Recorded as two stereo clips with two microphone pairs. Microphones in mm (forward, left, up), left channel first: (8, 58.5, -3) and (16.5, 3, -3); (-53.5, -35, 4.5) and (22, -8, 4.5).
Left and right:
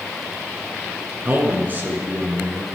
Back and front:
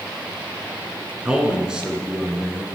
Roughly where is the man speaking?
Ahead right.